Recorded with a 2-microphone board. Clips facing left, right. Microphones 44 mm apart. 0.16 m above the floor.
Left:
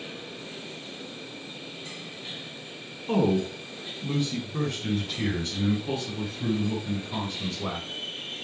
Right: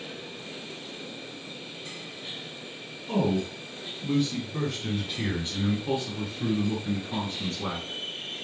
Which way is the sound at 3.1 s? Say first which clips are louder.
Left 3 dB; 30° left (ahead or behind).